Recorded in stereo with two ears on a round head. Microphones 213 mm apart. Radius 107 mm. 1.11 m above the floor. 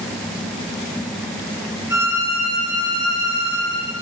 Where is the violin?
10° right (ahead or behind), 1.6 m.